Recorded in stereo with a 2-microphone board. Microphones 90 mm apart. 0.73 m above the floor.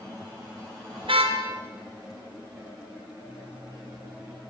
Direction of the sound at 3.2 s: 80° right.